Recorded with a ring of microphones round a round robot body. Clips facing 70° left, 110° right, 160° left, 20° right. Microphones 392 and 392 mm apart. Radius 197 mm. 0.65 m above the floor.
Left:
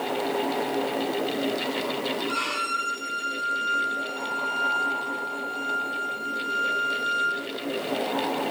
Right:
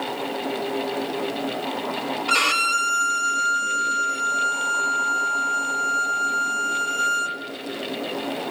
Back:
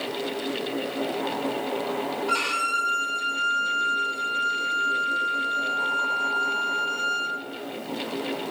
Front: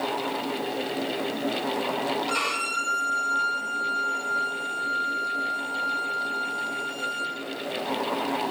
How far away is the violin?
About 0.6 m.